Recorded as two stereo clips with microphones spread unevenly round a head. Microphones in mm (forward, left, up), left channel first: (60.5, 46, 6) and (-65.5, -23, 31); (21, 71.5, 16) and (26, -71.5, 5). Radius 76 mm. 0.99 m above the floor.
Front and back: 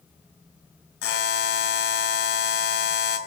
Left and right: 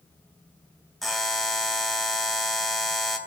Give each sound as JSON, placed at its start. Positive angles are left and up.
{"t": 1.0, "sound": "a buzzer", "azimuth_deg": 5, "distance_m": 2.5}